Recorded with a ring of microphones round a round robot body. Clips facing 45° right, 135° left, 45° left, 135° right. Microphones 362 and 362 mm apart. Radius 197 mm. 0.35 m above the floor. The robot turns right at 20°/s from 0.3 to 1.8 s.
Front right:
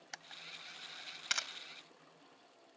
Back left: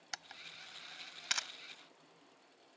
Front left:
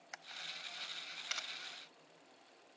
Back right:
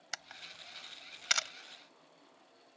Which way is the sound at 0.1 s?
160° right.